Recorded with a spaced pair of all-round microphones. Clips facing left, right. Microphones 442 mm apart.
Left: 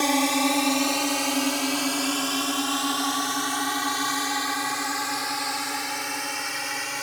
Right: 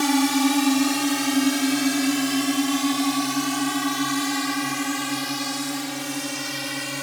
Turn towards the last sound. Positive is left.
turn(degrees=-55)  # may be behind; listen again after turning